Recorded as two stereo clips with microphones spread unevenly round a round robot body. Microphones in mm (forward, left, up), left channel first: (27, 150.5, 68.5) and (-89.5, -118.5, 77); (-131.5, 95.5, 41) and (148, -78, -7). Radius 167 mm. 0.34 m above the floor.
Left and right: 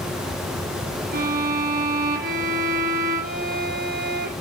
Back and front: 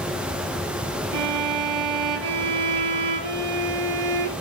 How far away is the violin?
About 2.5 m.